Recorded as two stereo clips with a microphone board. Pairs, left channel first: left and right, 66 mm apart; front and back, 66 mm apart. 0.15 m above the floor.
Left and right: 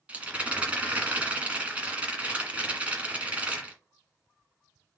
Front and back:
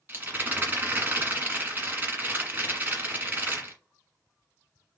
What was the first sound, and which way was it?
A rattle, 150° right.